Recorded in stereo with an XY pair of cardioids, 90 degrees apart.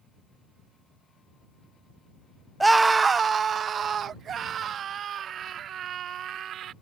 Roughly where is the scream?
Ahead.